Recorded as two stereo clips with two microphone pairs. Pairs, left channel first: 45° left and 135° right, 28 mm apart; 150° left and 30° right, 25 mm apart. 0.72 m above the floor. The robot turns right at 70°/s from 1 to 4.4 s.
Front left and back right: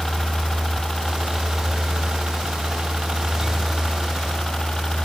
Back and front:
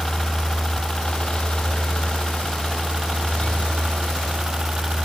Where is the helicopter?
115° left; by 5.0 s straight ahead.